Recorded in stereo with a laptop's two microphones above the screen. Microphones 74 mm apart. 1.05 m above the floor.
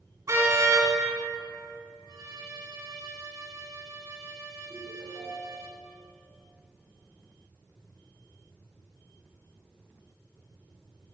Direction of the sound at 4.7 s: 30° left (ahead or behind).